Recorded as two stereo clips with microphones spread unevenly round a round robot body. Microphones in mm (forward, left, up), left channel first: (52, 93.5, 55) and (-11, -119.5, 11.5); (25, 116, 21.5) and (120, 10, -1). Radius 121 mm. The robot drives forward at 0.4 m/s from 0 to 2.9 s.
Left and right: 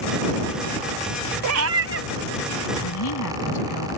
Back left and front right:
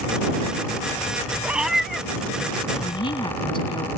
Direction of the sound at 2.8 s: 75° left.